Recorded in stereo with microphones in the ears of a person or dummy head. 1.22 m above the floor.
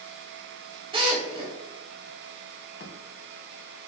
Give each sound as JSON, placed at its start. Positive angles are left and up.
{"t": 0.9, "sound": "a drill", "side_deg": -30, "distance_m": 3.5}
{"t": 2.8, "sound": "a thud", "side_deg": 60, "distance_m": 2.0}